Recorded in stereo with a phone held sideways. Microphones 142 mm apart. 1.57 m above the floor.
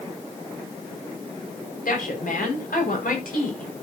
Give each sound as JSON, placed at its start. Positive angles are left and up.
{"t": 1.9, "sound": "a woman speaking", "side_deg": 80, "distance_m": 6.0}